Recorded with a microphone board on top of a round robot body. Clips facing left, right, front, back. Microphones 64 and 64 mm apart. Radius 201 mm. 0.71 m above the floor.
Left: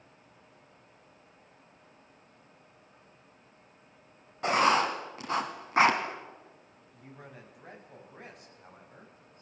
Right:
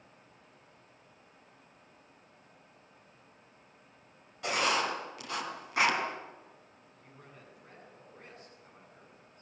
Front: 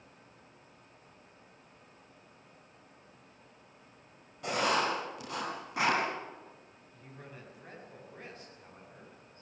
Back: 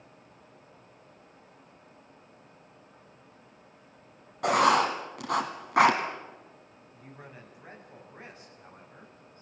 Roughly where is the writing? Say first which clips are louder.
Left 6 dB, back 7 dB; behind left.